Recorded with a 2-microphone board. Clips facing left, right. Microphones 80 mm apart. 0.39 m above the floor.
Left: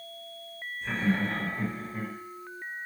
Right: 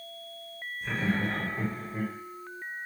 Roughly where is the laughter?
Centre.